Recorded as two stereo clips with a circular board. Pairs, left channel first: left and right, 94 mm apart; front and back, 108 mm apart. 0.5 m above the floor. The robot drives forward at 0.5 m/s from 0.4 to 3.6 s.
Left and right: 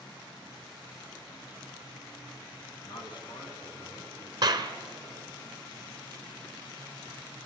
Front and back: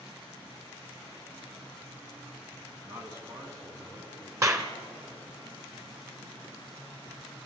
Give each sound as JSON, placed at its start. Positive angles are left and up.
{"t": 2.8, "sound": "a man speaking", "azimuth_deg": 120, "distance_m": 4.0}
{"t": 4.4, "sound": "a clap", "azimuth_deg": -125, "distance_m": 1.3}